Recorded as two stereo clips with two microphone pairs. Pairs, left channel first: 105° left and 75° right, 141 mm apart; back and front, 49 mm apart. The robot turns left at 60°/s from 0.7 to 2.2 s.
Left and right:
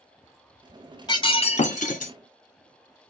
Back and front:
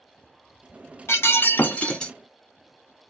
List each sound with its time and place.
1.1 s breaking glass: 165° left, 1.2 m; by 2.1 s 100° left, 1.2 m